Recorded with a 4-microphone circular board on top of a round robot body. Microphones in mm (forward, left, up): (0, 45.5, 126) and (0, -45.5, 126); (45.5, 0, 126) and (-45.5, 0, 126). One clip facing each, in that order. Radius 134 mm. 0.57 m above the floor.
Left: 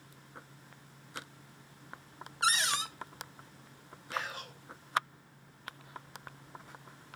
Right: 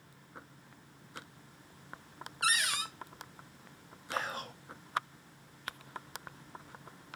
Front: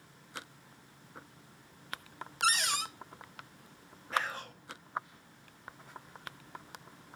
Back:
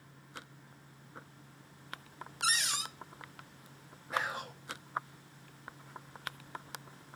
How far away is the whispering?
About 1.3 m.